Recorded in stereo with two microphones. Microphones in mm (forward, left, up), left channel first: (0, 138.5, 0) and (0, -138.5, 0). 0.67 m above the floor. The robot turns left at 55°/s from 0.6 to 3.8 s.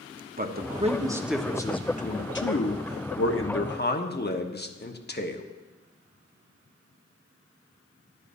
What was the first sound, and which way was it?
A man speaking, 140° right.